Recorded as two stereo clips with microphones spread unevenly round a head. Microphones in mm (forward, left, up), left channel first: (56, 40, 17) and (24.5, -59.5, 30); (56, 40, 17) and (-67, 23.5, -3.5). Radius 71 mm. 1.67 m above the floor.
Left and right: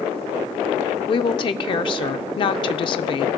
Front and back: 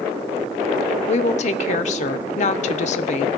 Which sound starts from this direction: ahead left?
A woman speaking, at 1.1 s.